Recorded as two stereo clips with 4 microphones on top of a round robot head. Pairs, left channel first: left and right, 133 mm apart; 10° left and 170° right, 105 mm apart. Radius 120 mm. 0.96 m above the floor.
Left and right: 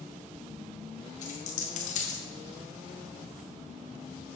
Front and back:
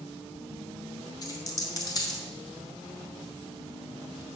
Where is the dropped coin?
60° left, 1.7 m.